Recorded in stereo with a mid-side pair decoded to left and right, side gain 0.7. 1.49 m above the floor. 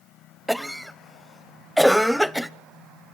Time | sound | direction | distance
0.5 | a cough | straight ahead | 0.8 m